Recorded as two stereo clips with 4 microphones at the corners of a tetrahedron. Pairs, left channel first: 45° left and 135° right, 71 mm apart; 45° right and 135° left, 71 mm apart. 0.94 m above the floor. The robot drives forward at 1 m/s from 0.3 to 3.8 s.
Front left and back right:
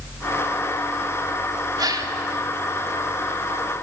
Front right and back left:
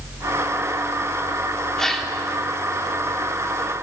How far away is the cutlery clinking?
I don't hear cutlery clinking.